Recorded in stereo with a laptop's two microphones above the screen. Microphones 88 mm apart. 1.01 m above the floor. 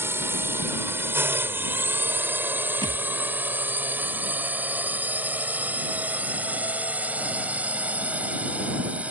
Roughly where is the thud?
Right.